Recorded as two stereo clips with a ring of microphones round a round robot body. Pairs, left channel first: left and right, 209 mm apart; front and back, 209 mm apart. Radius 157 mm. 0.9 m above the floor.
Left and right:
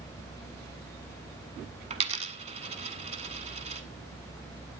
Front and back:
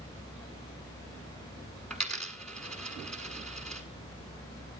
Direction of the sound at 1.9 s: 85° right.